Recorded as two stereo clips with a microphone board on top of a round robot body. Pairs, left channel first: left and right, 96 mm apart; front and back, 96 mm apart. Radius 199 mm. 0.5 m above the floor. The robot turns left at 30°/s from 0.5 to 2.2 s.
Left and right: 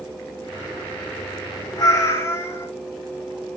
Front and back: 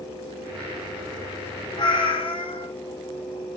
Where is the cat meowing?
40° left, 0.8 m; by 2.7 s 30° left, 0.8 m.